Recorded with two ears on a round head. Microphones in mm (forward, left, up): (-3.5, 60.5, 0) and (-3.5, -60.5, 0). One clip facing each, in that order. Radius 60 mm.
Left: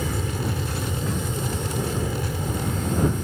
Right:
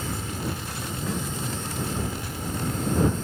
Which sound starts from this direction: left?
An aircraft, at 0.0 s.